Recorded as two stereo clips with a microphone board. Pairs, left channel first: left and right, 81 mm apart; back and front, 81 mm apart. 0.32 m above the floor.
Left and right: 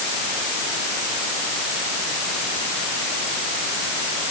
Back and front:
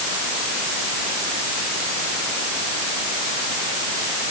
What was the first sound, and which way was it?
Only background noise.